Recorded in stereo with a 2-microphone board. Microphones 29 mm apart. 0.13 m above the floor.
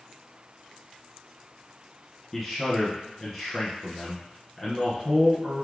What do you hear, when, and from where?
2.3 s a man speaking: 15° left (ahead or behind), 1.7 m